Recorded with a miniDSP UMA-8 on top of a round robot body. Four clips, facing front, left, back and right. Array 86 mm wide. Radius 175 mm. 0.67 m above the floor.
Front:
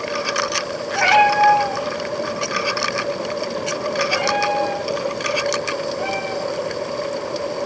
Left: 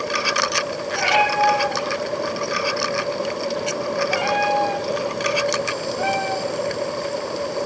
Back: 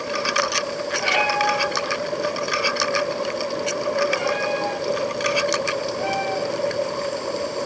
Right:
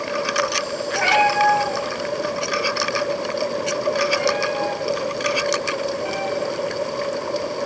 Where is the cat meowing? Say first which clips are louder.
Right 1 dB, front 8 dB; 15° right, 3.5 m; by 6.8 s 95° left, 4 m.